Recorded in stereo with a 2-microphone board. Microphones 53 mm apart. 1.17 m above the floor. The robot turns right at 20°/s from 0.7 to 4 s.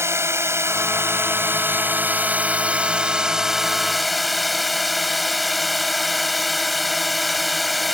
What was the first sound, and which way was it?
A drone, 65° right.